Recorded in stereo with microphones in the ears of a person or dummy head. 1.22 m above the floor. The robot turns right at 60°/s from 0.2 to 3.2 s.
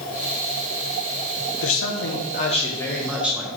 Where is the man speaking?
90° left, 1.0 m; by 3.5 s 175° right, 1.0 m.